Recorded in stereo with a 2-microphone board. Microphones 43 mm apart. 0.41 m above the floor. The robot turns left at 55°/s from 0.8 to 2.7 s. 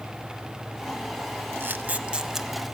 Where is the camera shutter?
55° right (ahead or behind), 0.8 m; by 2.5 s 5° right (ahead or behind), 0.8 m.